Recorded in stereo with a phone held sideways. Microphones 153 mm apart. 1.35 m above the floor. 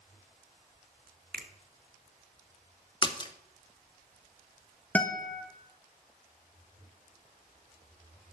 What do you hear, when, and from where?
1.3 s a finger snap: 85° right, 1.0 m
3.0 s a splash: 30° left (ahead or behind), 0.8 m
5.0 s a guitar: 10° left (ahead or behind), 1.1 m